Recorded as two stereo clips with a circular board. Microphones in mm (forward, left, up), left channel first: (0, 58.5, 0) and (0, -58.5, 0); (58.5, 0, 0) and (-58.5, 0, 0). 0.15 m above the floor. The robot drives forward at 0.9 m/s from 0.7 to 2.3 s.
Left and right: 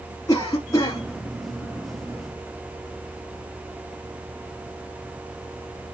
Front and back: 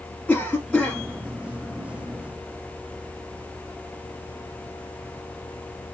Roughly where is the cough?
Left.